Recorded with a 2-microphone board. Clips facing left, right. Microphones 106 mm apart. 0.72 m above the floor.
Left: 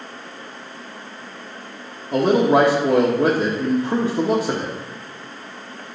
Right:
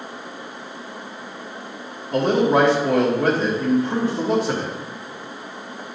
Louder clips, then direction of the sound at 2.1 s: Left 2 dB; 25° left (ahead or behind).